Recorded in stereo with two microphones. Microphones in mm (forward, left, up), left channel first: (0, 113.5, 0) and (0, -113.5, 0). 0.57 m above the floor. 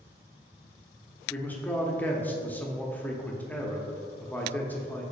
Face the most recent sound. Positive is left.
turn(degrees=10)  # may be behind; listen again after turning